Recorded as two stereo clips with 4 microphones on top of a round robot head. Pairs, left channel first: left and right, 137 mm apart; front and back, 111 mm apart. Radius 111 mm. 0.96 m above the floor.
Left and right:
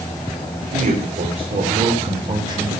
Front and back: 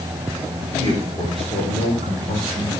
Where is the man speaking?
65° right, 4 m; by 2.7 s 25° right, 4.5 m.